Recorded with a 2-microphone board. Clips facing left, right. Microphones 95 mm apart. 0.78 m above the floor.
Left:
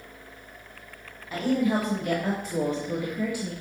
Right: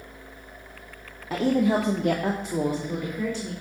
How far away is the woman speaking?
About 1.7 m.